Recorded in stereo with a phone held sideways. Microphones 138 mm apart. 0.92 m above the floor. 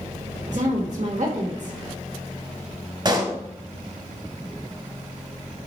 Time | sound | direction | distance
0.5 | a woman speaking | 60° right (ahead or behind) | 2 m
3.0 | a pop | 35° right (ahead or behind) | 1.3 m